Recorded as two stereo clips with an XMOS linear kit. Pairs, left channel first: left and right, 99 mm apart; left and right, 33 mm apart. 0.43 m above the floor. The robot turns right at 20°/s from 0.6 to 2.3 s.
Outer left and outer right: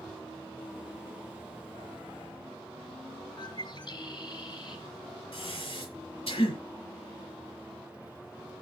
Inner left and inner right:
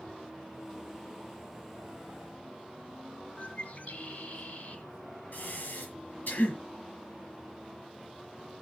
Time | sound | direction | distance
3.4 | a bird | 50° left (ahead or behind) | 3 m
5.3 | breathing | 70° left (ahead or behind) | 6.5 m